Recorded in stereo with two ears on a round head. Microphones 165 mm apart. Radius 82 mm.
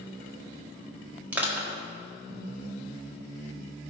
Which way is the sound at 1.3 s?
10° right (ahead or behind).